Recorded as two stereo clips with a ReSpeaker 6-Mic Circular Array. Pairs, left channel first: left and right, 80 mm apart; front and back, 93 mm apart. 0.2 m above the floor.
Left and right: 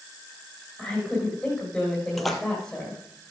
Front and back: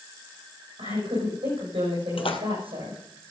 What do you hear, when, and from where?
0.8 s a woman speaking: 175° left, 7.5 m
2.2 s a splash: 5° left, 1.5 m